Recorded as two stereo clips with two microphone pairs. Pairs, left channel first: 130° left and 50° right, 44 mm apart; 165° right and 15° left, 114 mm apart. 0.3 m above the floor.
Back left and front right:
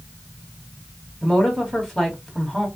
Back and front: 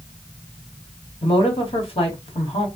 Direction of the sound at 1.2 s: 155° right.